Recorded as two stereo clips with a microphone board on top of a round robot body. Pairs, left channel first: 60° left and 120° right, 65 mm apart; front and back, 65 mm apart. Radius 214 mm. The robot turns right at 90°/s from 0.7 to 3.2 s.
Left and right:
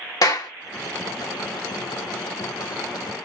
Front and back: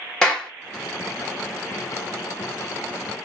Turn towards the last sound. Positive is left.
turn(degrees=-55)